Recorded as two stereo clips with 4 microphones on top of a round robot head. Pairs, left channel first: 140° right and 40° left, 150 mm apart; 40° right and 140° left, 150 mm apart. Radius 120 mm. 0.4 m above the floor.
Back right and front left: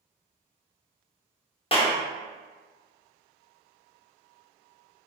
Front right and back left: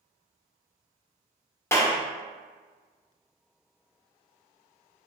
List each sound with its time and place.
1.7 s a clap: 105° right, 0.9 m